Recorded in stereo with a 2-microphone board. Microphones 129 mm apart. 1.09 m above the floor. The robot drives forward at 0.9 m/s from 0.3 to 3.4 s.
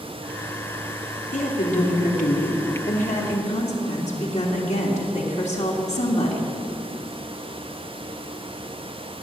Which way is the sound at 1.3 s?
75° left (ahead or behind).